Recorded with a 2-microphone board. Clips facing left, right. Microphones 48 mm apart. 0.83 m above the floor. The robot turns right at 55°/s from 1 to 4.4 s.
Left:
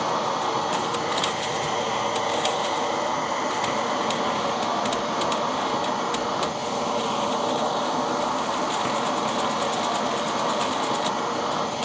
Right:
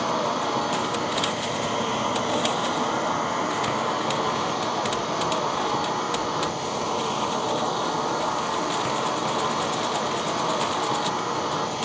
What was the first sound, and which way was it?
An insect, straight behind.